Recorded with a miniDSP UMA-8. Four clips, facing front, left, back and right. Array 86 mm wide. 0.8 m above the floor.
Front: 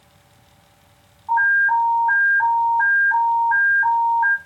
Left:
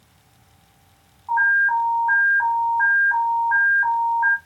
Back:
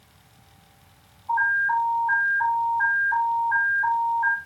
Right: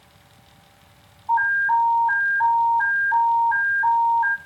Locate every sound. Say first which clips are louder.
1.3 s an alarm: left 1 dB, front 5 dB; 30° left, 1.4 m